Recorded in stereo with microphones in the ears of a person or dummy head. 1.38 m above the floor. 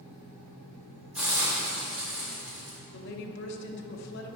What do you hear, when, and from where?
1.1 s a hiss: 5° right (ahead or behind), 2 m
2.9 s a woman speaking: 60° left (ahead or behind), 1.1 m